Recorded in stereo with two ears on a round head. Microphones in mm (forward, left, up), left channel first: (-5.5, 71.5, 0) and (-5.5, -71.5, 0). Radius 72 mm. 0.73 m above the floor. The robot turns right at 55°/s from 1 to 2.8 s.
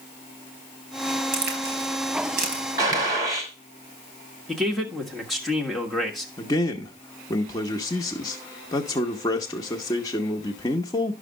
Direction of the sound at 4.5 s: Centre (ahead or behind).